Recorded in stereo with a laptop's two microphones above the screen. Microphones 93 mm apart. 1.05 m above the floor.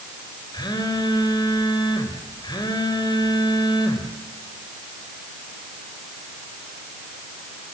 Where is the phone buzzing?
50° left (ahead or behind), 4.5 m.